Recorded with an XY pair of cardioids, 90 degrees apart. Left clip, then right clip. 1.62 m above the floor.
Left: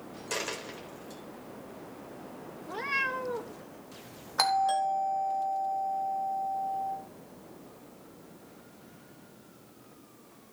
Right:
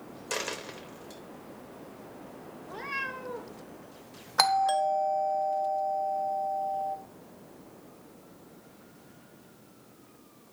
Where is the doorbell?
40° right, 2 m.